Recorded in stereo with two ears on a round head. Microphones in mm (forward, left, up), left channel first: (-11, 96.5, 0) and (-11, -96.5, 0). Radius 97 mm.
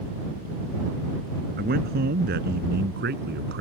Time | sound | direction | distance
1.6 | a man speaking | 45° right (ahead or behind) | ?